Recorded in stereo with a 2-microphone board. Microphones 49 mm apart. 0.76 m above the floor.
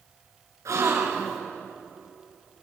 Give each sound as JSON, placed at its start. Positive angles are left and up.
{"t": 0.7, "sound": "a gasp", "side_deg": -85, "distance_m": 4.0}